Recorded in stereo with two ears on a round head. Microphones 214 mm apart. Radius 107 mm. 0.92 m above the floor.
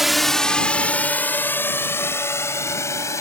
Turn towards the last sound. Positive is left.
turn(degrees=10)  # may be behind; listen again after turning